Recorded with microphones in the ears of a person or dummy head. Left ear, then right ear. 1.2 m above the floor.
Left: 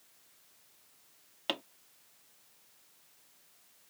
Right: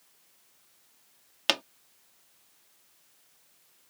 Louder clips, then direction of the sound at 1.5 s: Right 9 dB; 60° right (ahead or behind).